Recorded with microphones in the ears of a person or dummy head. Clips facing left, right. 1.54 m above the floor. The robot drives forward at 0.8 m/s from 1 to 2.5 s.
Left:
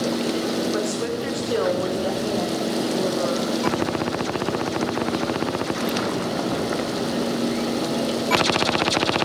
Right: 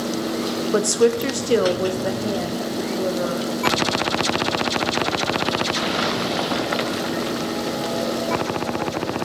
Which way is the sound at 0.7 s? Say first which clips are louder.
Right 7 dB; 65° right (ahead or behind).